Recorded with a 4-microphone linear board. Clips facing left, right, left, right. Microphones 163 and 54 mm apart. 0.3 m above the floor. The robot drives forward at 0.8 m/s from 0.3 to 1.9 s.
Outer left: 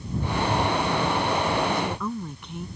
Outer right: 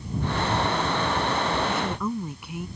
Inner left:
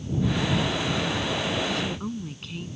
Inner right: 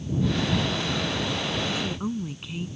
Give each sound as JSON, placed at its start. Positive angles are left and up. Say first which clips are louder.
{"t": 1.7, "sound": "a woman speaking", "louder": "even, even", "side_deg": -5}